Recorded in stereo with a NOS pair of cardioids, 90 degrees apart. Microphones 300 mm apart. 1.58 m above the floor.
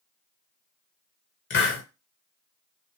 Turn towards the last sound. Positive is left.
turn(degrees=40)